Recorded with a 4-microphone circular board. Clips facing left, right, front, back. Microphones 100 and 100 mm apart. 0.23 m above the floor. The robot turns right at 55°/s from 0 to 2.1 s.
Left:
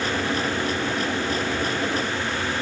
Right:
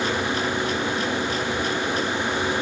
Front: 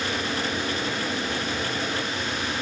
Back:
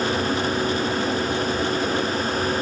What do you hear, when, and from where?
Only background noise.